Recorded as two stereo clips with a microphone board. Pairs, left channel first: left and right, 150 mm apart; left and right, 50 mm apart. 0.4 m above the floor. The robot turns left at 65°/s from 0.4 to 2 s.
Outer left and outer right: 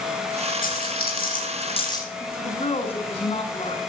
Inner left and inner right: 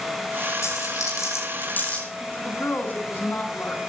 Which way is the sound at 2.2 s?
40° left (ahead or behind).